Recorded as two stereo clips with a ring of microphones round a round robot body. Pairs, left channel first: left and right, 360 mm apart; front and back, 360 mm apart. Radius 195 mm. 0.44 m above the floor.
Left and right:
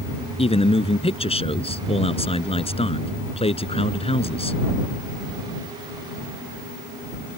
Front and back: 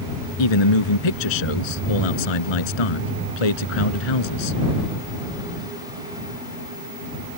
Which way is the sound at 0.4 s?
15° left.